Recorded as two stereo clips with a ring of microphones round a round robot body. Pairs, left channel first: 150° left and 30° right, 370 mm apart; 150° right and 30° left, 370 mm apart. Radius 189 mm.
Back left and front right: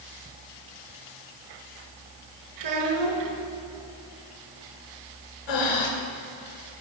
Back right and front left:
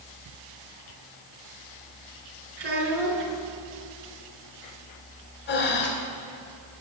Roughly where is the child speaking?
Ahead.